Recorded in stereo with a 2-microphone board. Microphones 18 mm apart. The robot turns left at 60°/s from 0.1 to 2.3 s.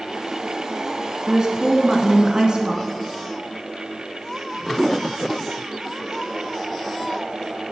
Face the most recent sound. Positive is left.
turn(degrees=-95)